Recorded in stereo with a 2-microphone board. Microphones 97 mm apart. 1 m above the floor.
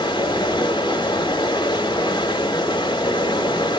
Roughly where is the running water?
Left.